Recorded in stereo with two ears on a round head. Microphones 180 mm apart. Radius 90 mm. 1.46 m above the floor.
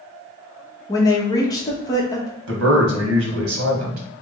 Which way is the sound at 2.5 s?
85° right.